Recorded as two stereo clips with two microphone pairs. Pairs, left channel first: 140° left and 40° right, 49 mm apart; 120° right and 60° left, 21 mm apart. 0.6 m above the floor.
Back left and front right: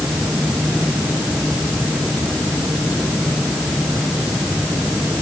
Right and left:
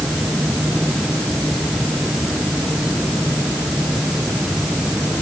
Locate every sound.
Only background noise.